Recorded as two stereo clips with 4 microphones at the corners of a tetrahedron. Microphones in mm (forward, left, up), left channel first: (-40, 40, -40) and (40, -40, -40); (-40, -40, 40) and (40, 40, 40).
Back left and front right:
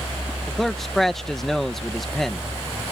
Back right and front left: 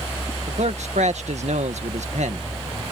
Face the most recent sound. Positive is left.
turn(degrees=50)